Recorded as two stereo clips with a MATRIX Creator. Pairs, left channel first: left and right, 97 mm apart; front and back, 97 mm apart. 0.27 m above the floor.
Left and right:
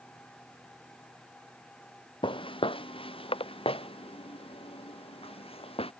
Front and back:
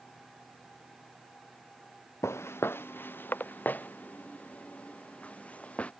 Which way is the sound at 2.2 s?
60° left.